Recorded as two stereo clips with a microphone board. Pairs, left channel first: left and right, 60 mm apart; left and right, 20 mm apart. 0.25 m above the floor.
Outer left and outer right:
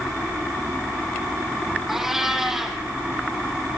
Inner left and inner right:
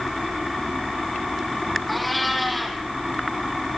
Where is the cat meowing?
5° right (ahead or behind), 3.5 m.